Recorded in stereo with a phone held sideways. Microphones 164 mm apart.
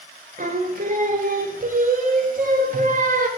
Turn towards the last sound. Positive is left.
turn(degrees=-55)  # may be behind; listen again after turning